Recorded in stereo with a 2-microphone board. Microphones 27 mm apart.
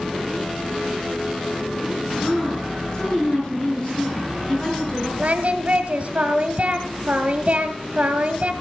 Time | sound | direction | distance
2.2 | a woman speaking | 35° left (ahead or behind) | 5.5 m
5.2 | singing | 50° right (ahead or behind) | 1.2 m